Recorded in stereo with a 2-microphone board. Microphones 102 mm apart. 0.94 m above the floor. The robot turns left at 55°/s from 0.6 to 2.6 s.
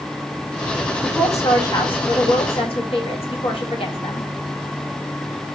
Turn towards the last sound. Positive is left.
turn(degrees=65)  # may be behind; listen again after turning